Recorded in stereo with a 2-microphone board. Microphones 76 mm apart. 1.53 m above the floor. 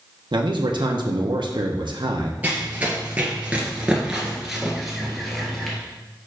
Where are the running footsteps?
20° right (ahead or behind), 1.8 m; by 5.8 s 5° left (ahead or behind), 1.8 m.